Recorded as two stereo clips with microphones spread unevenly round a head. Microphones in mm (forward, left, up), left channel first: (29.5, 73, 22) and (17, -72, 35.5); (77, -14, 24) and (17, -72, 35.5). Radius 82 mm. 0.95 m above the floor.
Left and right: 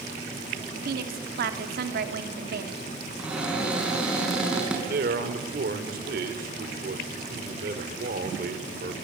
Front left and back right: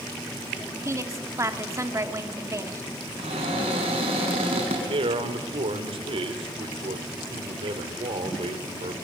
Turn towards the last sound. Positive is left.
turn(degrees=-130)